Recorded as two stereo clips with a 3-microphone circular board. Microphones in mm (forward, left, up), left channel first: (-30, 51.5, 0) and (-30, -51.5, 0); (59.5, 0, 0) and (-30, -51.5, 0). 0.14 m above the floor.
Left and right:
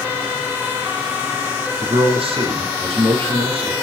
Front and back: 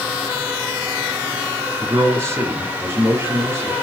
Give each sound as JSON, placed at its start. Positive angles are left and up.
{"t": 1.8, "sound": "a man speaking", "azimuth_deg": -90, "distance_m": 3.5}